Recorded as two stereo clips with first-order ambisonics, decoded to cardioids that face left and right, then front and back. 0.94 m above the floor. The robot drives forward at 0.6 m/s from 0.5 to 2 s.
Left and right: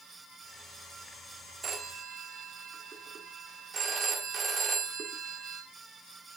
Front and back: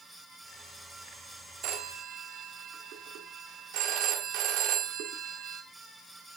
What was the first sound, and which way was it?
A phone ringing, 150° right.